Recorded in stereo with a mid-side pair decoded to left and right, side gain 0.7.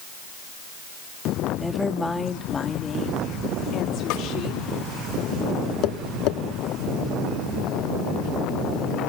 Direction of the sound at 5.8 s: 60° left.